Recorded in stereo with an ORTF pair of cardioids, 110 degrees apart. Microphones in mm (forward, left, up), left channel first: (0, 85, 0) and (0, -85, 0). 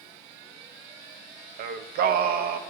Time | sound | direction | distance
1.6 | singing | 65° right | 1.0 m